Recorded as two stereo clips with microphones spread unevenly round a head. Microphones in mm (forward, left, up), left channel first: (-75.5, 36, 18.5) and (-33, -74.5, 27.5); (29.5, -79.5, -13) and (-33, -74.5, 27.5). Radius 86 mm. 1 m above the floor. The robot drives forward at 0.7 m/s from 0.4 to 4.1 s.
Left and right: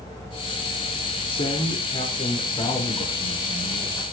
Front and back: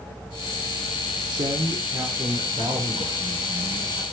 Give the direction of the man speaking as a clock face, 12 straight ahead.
7 o'clock.